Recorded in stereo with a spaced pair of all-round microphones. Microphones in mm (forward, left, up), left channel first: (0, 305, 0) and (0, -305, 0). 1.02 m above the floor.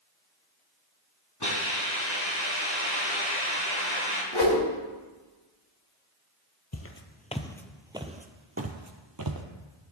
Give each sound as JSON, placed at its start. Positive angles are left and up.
{"t": 1.4, "sound": "a hiss", "side_deg": 40, "distance_m": 5.0}
{"t": 4.3, "sound": "a whoosh", "side_deg": 45, "distance_m": 3.5}
{"t": 6.7, "sound": "footsteps", "side_deg": 25, "distance_m": 1.1}